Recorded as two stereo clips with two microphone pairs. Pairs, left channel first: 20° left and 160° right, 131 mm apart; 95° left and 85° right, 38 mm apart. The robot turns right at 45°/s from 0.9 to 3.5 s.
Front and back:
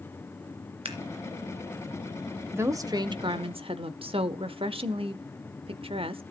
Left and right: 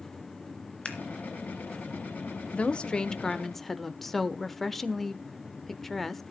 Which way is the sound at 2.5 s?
130° left.